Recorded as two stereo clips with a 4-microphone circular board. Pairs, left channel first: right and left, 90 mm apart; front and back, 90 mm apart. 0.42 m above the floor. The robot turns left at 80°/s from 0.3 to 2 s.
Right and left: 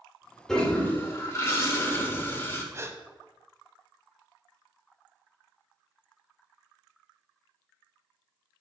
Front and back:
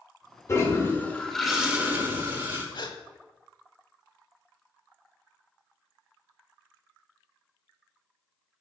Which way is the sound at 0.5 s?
10° right.